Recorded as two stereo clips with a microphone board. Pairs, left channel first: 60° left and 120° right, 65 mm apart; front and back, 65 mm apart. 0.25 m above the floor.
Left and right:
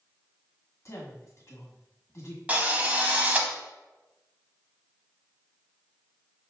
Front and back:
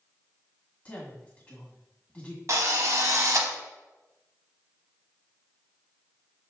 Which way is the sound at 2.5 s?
Straight behind.